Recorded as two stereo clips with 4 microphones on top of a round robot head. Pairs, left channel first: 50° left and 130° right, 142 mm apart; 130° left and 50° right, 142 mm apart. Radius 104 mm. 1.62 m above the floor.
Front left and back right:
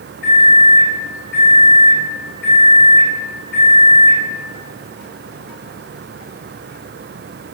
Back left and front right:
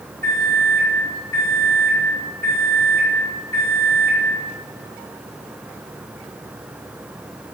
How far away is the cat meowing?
I don't hear a cat meowing.